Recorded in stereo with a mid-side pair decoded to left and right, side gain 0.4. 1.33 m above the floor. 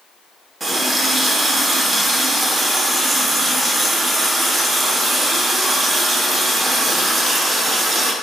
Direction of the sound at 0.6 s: 35° right.